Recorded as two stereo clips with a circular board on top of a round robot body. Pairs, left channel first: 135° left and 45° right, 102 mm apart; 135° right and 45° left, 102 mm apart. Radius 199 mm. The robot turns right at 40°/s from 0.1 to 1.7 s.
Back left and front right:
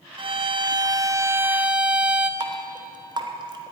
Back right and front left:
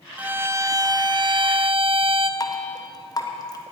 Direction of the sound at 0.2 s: 30° right.